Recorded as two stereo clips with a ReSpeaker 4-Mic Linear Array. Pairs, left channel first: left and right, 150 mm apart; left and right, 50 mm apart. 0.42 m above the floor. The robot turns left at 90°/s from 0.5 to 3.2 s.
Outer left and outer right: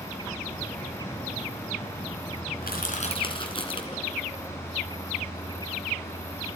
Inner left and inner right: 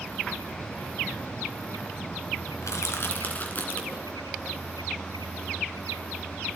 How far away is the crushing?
About 2.5 m.